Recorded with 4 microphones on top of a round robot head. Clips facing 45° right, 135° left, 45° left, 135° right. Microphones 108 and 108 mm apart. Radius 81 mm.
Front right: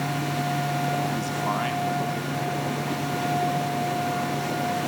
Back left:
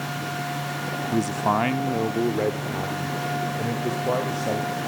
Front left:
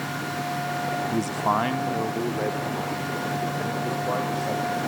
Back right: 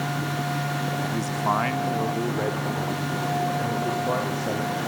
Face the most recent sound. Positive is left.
turn(degrees=145)